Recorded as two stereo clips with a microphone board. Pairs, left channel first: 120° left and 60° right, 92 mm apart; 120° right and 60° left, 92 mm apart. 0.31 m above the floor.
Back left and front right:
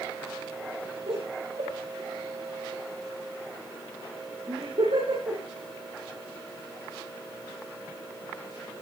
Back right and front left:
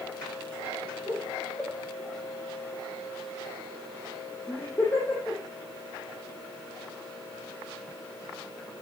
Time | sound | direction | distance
1.1 | laughter | 50° right | 9.5 m